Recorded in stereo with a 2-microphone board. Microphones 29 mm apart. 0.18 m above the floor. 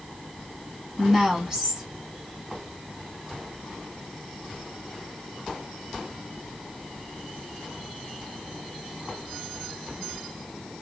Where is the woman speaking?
20° right (ahead or behind), 1.7 m.